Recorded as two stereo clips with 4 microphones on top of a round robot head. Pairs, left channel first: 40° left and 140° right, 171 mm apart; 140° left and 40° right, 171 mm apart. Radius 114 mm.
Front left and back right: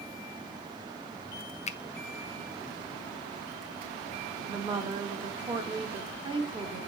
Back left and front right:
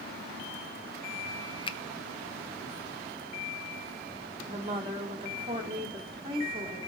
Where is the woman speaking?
90° right, 1.7 m.